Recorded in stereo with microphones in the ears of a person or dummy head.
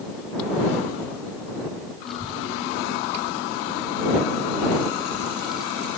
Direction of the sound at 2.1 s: Centre (ahead or behind).